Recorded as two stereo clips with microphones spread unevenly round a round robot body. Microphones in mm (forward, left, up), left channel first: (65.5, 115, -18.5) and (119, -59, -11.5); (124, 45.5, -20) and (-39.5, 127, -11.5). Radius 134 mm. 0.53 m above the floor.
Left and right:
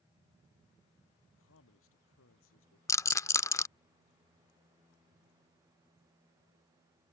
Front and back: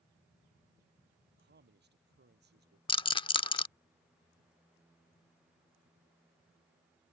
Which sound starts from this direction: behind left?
A man speaking, at 1.2 s.